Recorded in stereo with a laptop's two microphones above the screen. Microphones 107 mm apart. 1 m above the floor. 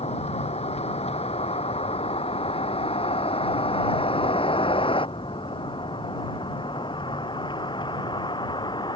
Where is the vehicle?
75° left (ahead or behind); by 9.0 s 45° left (ahead or behind).